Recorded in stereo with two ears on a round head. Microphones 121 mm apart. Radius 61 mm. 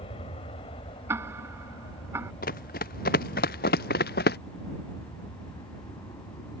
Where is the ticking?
20° right (ahead or behind).